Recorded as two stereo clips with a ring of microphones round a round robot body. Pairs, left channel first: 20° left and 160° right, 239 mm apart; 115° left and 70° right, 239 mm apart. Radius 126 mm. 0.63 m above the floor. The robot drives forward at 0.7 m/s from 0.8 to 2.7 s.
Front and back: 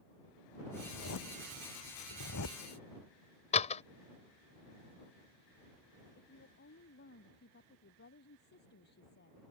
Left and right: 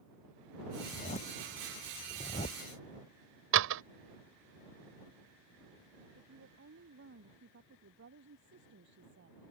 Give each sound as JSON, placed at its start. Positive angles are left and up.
{"t": 0.8, "sound": "a zipper", "azimuth_deg": 50}
{"t": 3.5, "sound": "a door slam", "azimuth_deg": -40}
{"t": 6.2, "sound": "a woman speaking", "azimuth_deg": -25}